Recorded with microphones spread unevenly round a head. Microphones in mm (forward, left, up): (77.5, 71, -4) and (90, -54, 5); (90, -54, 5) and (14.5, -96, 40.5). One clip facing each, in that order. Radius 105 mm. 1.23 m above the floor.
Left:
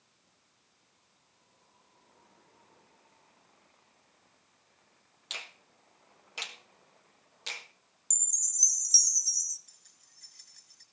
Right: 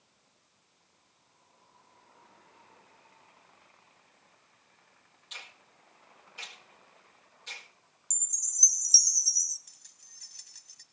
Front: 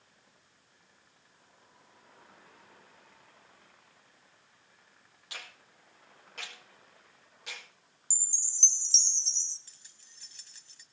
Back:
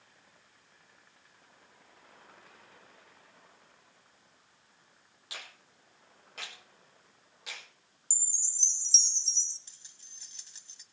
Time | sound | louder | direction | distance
5.3 | a finger snap | left 3 dB, even | 120° left | 1.6 m
8.1 | a chime | right 2 dB, front 1 dB | straight ahead | 1.5 m
9.7 | keys jangling | right 1 dB, front 1 dB | 95° right | 2 m